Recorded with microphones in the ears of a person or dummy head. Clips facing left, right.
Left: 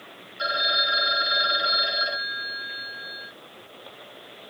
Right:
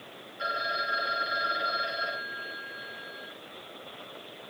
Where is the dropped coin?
I don't hear a dropped coin.